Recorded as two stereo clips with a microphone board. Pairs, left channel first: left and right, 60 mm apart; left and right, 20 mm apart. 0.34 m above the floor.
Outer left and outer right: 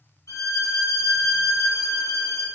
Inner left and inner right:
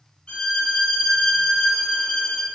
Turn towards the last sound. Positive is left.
turn(degrees=65)  # may be behind; listen again after turning